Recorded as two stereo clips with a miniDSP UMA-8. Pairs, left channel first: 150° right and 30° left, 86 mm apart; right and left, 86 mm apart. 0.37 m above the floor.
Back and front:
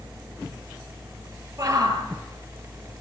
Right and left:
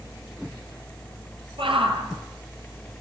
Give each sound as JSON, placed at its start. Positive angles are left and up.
{"t": 1.6, "sound": "a shout", "azimuth_deg": 80, "distance_m": 9.0}